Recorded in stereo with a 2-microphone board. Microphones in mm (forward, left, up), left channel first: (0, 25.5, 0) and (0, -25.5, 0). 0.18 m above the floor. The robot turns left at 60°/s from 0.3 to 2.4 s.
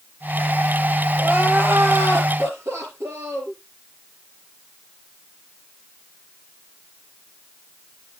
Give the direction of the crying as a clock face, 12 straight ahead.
1 o'clock.